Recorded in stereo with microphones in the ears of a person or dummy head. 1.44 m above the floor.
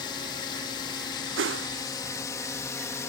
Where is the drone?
20° left (ahead or behind); by 3.1 s 15° left (ahead or behind).